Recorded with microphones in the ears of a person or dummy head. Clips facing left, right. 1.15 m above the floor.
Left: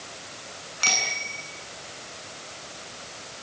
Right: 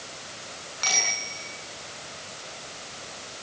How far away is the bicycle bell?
About 9 m.